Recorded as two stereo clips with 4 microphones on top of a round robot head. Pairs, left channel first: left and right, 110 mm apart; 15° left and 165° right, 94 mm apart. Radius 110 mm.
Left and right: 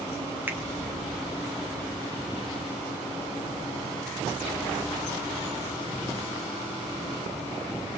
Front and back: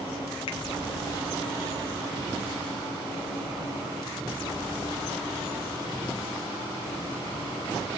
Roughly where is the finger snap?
Ahead.